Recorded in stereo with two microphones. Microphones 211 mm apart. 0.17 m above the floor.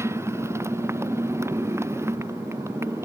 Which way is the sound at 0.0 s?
15° right (ahead or behind).